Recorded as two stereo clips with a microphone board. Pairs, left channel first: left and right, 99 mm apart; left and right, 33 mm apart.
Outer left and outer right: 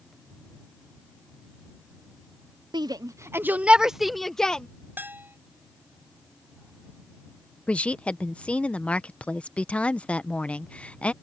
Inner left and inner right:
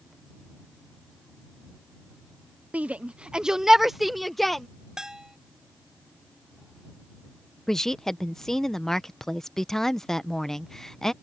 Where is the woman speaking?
15° left (ahead or behind).